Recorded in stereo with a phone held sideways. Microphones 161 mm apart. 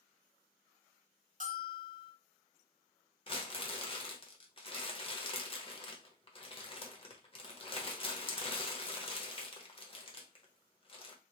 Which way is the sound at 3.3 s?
35° left (ahead or behind).